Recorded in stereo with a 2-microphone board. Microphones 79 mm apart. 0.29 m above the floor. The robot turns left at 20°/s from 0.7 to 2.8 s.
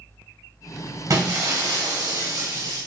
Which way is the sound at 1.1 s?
70° right.